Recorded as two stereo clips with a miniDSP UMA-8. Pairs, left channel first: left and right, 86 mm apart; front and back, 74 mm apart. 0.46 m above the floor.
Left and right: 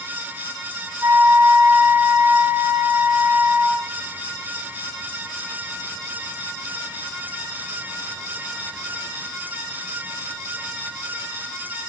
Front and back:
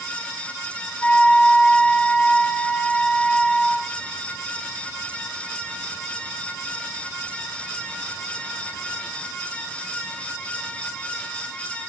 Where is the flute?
45° right, 1.4 m.